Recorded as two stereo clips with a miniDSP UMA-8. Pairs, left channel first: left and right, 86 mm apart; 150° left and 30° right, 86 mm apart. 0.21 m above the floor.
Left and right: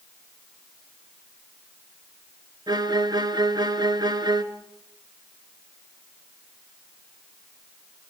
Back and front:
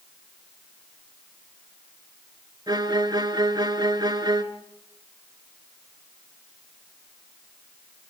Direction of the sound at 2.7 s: 60° right.